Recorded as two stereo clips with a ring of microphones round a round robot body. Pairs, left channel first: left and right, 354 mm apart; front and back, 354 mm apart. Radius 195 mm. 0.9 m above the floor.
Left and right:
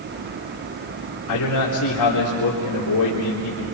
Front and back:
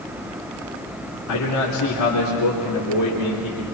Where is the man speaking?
45° left, 3.5 m.